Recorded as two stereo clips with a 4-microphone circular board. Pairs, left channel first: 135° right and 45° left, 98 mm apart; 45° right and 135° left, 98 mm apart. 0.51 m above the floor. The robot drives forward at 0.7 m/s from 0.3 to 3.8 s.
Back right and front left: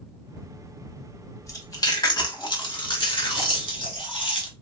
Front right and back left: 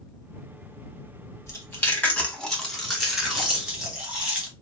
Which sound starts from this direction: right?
Chewing, at 1.5 s.